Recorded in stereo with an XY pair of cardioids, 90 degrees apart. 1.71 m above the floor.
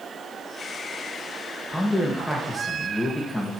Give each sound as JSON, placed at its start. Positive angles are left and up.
{"t": 1.7, "sound": "a man speaking", "azimuth_deg": 10, "distance_m": 2.0}